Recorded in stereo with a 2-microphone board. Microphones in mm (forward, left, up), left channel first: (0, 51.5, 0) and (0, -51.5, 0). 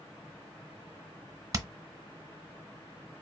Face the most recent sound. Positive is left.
turn(degrees=-30)  # may be behind; listen again after turning